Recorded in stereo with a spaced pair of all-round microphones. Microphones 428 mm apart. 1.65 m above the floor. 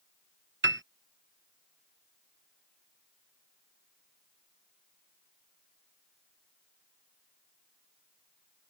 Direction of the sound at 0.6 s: 25° right (ahead or behind).